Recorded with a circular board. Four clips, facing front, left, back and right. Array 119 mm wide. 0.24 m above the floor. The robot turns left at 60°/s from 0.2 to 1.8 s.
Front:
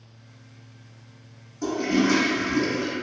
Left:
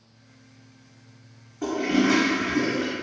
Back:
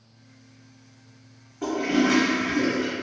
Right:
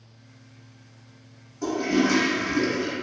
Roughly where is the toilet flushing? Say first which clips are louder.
Left 1 dB, even; behind left.